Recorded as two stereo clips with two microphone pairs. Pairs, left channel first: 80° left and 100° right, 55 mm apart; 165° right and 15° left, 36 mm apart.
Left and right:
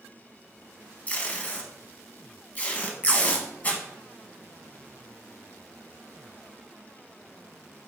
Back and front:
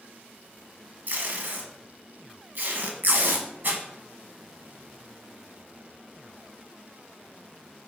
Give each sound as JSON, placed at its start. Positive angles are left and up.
{"t": 1.1, "sound": "tape being pulled", "azimuth_deg": 25, "distance_m": 0.8}